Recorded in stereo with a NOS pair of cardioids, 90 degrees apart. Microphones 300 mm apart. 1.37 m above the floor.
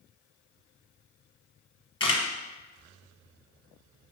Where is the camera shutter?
20° left, 1.0 m.